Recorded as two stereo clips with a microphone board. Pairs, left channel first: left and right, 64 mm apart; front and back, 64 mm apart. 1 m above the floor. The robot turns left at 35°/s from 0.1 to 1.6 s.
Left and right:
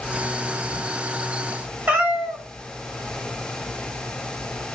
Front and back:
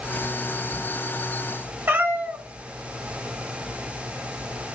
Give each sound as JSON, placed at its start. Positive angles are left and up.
{"t": 1.9, "sound": "a cat meowing", "azimuth_deg": -140, "distance_m": 0.8}